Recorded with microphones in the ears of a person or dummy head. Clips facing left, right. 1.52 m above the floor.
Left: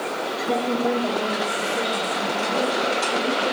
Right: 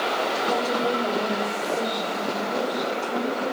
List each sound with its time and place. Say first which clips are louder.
0.5 s a woman speaking: left 5 dB; 30° left (ahead or behind), 1.5 m; by 3.5 s 15° left (ahead or behind), 3.5 m